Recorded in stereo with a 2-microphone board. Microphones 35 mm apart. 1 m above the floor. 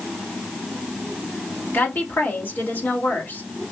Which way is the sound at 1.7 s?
70° left (ahead or behind).